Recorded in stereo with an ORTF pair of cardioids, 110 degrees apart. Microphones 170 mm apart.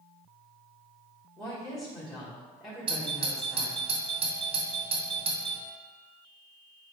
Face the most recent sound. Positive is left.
turn(degrees=-30)